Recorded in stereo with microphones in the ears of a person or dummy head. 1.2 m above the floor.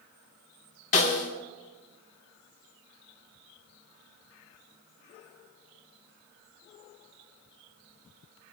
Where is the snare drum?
40° left (ahead or behind), 2.0 m.